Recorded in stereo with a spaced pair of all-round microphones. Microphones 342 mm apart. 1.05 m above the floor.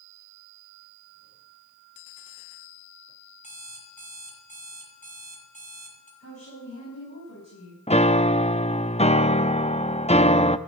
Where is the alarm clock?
20° left (ahead or behind), 4.5 m.